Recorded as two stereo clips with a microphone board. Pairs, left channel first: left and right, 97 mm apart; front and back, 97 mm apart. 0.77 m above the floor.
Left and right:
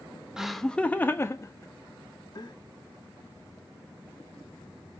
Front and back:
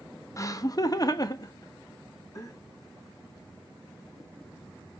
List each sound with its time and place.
0.4 s laughter: 10° right, 0.6 m; by 2.5 s 50° left, 1.3 m